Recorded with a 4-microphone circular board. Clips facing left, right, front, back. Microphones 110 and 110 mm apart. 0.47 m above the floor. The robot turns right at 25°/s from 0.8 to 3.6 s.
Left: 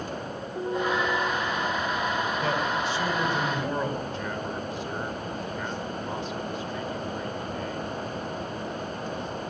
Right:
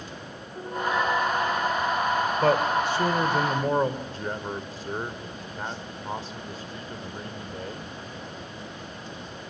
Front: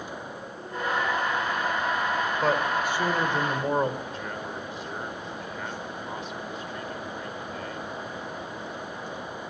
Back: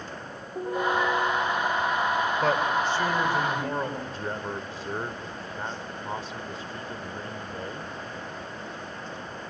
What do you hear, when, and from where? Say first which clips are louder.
0.6 s a piano: even, back 4 dB; 155° left, 6.5 m; by 2.1 s 175° right, 6.5 m
2.4 s a man speaking: right 5 dB, front 1 dB; 85° right, 2 m; by 4.0 s 55° right, 2 m
4.1 s a man speaking: left 1 dB, back 2 dB; 135° right, 1.5 m